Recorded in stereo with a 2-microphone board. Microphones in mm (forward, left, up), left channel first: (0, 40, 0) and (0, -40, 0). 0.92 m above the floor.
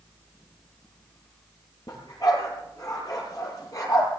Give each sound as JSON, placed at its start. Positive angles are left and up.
{"t": 1.9, "sound": "a dog barking", "side_deg": 55, "distance_m": 8.0}